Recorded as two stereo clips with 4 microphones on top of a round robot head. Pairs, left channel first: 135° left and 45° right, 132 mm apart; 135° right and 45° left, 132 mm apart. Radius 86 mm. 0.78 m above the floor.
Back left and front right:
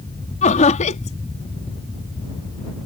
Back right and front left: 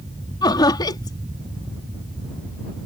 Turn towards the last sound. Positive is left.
turn(degrees=165)